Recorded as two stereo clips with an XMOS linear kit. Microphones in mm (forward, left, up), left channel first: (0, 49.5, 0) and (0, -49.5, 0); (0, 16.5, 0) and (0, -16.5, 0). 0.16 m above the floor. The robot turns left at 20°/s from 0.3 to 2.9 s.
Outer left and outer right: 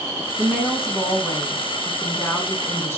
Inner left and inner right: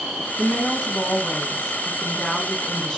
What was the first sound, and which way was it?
A woman speaking, centre (ahead or behind).